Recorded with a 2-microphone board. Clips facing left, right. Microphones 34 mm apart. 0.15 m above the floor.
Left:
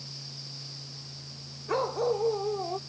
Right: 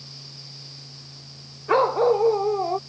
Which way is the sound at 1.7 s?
40° right (ahead or behind).